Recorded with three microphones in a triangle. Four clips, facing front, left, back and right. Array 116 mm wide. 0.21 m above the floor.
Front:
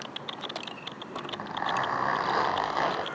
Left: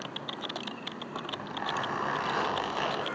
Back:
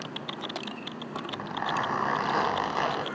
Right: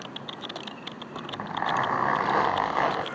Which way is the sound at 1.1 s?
95° right.